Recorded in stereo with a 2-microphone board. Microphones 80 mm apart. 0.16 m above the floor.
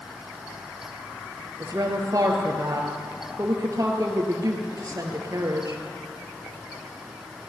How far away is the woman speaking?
About 3.5 m.